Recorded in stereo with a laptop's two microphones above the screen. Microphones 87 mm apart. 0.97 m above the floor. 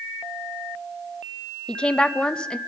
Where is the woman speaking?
10° left (ahead or behind), 0.8 m.